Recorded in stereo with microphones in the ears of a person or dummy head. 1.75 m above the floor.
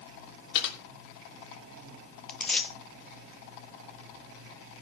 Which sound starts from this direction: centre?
Tearing paper, at 2.3 s.